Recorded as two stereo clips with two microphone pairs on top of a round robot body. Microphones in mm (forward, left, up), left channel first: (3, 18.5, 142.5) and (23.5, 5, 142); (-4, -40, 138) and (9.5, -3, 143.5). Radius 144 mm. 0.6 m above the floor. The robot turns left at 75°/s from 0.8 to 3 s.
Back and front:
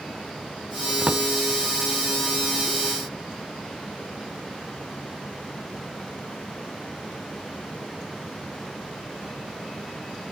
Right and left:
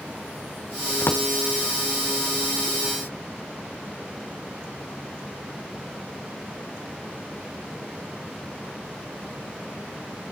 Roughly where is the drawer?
Right.